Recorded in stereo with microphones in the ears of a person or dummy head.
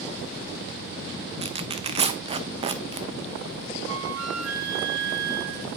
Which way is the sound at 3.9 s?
70° right (ahead or behind).